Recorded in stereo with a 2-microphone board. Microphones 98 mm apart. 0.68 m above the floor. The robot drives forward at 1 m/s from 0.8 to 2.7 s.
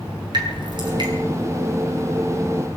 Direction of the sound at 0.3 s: 50° right (ahead or behind).